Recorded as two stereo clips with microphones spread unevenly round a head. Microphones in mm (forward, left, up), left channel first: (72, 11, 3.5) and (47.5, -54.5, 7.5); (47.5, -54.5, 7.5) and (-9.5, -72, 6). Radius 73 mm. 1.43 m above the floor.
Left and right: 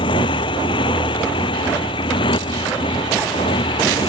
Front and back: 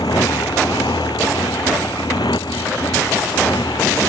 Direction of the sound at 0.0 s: 75° left.